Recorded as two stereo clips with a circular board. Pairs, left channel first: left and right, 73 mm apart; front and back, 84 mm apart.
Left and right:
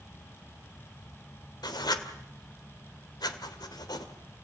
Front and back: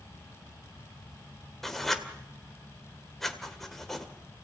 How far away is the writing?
About 1.9 m.